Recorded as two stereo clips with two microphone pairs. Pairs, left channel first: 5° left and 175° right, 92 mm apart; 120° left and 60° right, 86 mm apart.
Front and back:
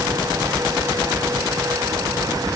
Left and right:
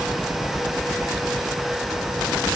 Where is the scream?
No scream in this recording.